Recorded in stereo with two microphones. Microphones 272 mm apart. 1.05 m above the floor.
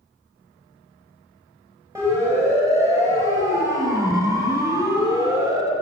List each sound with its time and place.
1.9 s a siren: 10° right (ahead or behind), 8 m